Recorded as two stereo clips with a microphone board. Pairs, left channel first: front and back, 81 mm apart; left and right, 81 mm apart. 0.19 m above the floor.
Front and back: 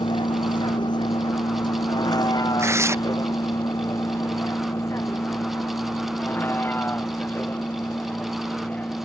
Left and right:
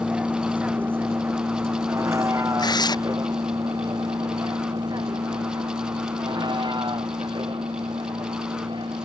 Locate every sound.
0.0 s a vehicle: 15° right; by 9.1 s 70° right
2.6 s tearing paper: 125° left